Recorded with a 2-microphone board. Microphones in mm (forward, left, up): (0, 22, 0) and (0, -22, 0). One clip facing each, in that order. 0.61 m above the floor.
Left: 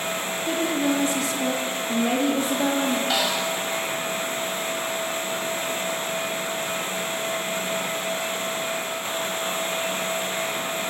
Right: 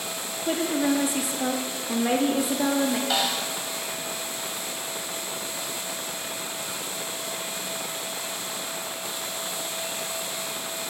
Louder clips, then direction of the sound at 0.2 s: Even; 15° right (ahead or behind).